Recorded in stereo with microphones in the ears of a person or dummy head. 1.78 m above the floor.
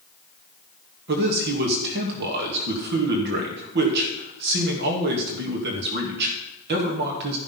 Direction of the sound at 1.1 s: 55° right (ahead or behind).